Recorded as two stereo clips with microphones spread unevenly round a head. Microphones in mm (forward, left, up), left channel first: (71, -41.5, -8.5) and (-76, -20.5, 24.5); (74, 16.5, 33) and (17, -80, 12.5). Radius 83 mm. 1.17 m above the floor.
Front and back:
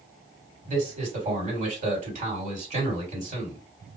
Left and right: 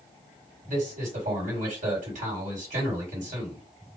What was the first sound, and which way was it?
A man speaking, 150° right.